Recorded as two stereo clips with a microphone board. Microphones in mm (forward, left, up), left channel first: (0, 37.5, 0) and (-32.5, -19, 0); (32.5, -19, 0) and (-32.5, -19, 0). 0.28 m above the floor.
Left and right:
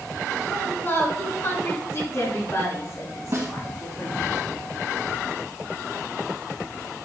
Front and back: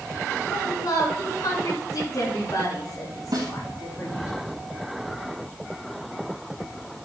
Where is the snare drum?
170° right, 3.5 m.